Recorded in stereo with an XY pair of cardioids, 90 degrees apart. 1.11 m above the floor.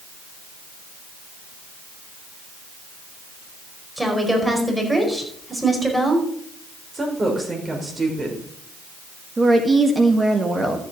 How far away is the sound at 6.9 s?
About 5 m.